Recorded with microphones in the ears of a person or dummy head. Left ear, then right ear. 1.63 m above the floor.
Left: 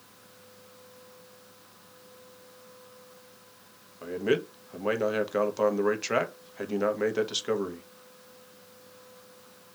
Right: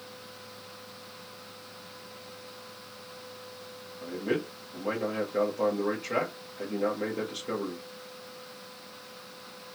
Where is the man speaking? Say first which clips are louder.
Left 4 dB; 60° left (ahead or behind), 0.7 m.